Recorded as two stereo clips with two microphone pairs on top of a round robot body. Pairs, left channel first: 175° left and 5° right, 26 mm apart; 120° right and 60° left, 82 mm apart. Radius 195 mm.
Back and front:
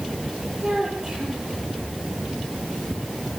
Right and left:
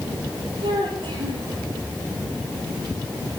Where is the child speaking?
60° left, 10 m.